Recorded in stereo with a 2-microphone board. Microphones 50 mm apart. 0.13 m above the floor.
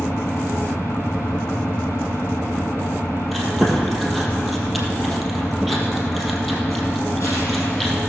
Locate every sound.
0.0 s an engine running: 75° left (ahead or behind), 3.5 m
3.3 s chewing: centre (ahead or behind), 2.5 m